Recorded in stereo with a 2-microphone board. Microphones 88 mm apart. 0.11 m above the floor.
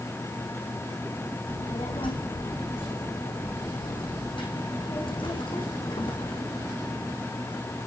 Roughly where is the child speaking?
Left.